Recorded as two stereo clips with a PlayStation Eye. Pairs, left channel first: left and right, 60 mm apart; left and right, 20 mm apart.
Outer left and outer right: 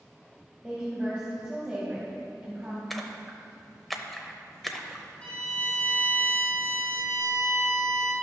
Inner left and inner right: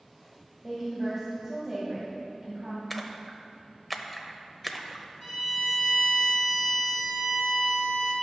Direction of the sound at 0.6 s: 15° right (ahead or behind).